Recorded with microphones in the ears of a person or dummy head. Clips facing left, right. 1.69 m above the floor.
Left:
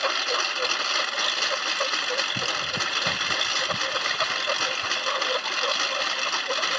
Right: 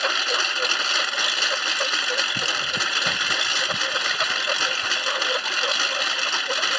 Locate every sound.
0.0 s a lawn mower: 5° right (ahead or behind)